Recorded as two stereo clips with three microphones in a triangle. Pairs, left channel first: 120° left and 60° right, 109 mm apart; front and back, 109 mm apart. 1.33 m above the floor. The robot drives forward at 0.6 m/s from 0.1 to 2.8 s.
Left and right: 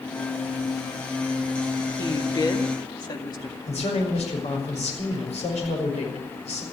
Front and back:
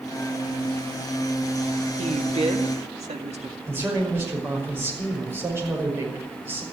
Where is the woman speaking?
170° left, 1.4 m.